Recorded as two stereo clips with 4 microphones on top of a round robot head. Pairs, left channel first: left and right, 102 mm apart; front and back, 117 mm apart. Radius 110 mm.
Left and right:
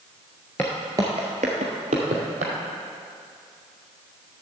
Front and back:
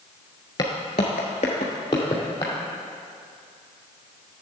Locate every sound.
0.6 s footsteps: 20° left, 0.7 m; by 2.5 s 70° right, 1.8 m